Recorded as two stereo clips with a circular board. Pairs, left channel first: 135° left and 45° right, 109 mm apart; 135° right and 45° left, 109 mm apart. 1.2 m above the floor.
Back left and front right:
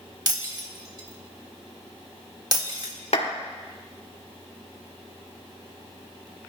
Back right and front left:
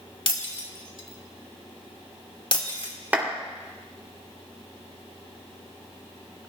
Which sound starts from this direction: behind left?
A clap, at 3.1 s.